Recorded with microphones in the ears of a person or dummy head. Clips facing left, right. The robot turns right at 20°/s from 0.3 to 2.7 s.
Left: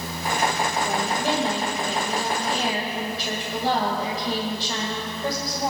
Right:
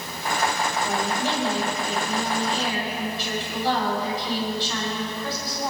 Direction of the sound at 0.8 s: 5° left.